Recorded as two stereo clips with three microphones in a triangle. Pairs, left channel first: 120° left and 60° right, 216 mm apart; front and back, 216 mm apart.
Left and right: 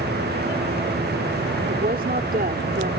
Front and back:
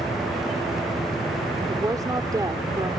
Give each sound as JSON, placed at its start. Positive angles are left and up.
{"t": 1.7, "sound": "a woman speaking", "azimuth_deg": -105}